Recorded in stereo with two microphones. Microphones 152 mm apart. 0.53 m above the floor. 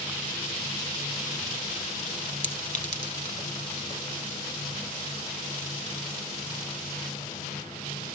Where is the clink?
55° left (ahead or behind), 1.5 m.